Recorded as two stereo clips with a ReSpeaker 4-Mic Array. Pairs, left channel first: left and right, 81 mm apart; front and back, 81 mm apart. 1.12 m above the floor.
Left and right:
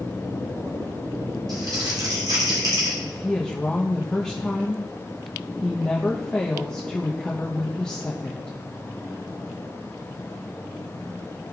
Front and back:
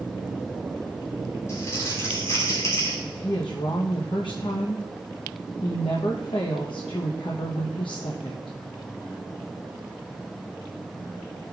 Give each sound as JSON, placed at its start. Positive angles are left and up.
{"t": 1.5, "sound": "crumpling", "azimuth_deg": -55, "distance_m": 2.5}
{"t": 3.0, "sound": "a woman speaking", "azimuth_deg": 10, "distance_m": 0.7}